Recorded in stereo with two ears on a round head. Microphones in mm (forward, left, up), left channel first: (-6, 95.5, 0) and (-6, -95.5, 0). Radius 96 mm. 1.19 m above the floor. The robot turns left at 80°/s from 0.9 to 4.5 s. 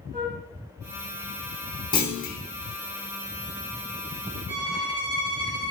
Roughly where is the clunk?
Behind left.